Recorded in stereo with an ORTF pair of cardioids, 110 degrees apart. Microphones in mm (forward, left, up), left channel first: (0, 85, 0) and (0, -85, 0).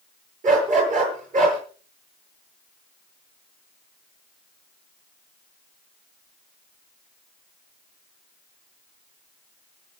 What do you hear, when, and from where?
0.4 s a dog barking: 50° right, 8.5 m